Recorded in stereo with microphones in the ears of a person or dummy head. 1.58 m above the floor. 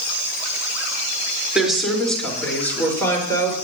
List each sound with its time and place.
1.6 s a woman speaking: centre (ahead or behind), 4.5 m; by 3.5 s 20° left (ahead or behind), 6 m